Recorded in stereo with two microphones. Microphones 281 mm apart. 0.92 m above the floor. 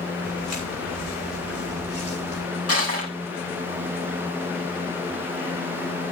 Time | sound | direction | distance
0.2 | footsteps | 80° left | 5.5 m
2.7 | crushing | 60° left (ahead or behind) | 4.5 m